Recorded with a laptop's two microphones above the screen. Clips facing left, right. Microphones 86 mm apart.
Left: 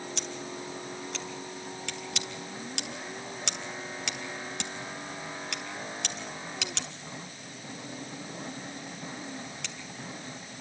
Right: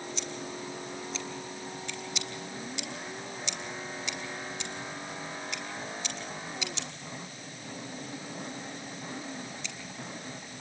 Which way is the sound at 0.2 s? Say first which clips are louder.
Even; 70° left (ahead or behind).